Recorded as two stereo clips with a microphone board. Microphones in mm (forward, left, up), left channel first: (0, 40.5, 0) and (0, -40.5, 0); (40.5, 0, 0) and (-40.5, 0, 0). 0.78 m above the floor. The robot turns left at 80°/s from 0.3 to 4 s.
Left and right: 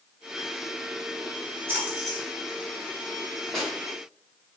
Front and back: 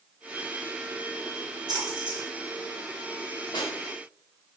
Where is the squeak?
I don't hear a squeak.